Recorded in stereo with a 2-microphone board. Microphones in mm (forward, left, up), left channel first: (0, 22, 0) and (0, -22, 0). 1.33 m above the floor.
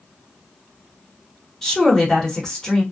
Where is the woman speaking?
10° left (ahead or behind), 1.1 m.